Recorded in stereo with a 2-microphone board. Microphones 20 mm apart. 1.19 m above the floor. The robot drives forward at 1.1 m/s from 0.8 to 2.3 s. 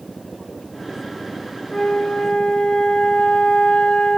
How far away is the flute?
About 1.1 m.